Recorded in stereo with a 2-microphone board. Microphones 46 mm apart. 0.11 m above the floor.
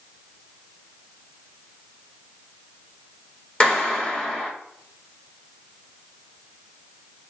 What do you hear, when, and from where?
3.6 s a clap: 25° left (ahead or behind), 1.1 m